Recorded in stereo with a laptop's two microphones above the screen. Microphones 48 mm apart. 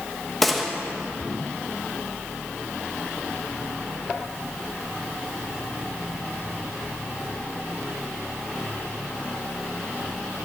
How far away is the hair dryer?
No hair dryer in this recording.